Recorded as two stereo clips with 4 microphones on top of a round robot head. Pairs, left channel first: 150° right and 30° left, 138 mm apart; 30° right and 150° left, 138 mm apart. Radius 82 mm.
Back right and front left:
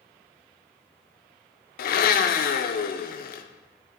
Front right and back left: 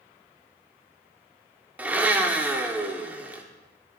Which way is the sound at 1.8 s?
130° right.